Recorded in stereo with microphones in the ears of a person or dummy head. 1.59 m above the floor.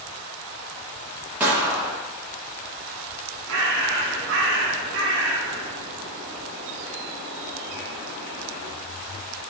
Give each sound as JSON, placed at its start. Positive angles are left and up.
{"t": 1.4, "sound": "a gunshot", "side_deg": -10, "distance_m": 1.1}
{"t": 3.5, "sound": "a bird", "side_deg": -65, "distance_m": 1.3}